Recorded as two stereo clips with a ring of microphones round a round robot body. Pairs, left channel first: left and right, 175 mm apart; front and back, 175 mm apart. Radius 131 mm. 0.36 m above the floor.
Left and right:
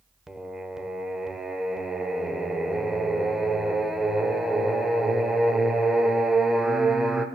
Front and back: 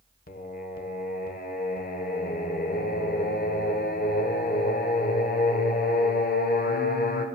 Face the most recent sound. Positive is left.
turn(degrees=-5)